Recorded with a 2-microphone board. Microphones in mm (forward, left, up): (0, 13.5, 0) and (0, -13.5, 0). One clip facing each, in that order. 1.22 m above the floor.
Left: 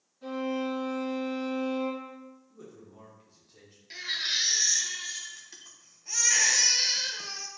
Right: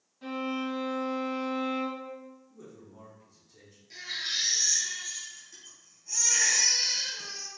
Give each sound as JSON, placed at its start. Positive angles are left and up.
{"t": 0.2, "sound": "a violin", "side_deg": -35, "distance_m": 1.9}
{"t": 2.5, "sound": "a man speaking", "side_deg": 20, "distance_m": 1.0}
{"t": 3.9, "sound": "a baby crying", "side_deg": 45, "distance_m": 0.6}